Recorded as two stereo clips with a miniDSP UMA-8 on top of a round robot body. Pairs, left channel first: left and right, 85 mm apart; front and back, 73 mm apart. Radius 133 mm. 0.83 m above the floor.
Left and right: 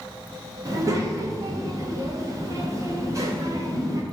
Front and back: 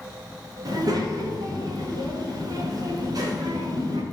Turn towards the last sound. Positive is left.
turn(degrees=-140)